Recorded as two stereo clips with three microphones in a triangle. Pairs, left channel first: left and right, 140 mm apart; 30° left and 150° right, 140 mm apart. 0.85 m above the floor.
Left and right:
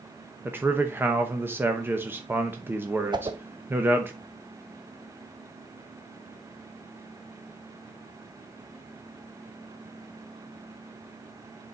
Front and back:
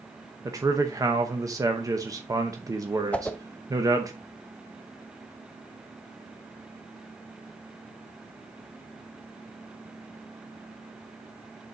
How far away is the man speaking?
About 0.8 m.